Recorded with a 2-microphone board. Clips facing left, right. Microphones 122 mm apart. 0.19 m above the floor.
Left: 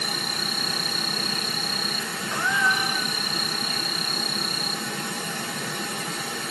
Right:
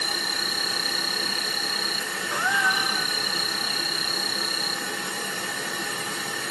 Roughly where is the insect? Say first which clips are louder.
Left 1 dB; left.